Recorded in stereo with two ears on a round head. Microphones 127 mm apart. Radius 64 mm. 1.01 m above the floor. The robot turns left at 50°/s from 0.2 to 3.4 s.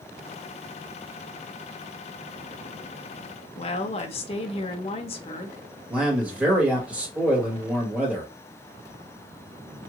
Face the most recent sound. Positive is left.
turn(degrees=-10)  # may be behind; listen again after turning